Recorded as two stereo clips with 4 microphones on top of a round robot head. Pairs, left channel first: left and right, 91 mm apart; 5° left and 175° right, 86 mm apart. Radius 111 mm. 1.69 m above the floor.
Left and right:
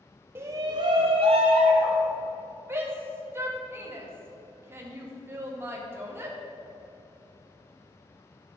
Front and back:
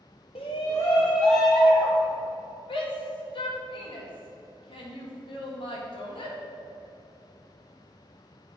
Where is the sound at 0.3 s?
30° right, 0.7 m; by 2.0 s 95° right, 1.4 m.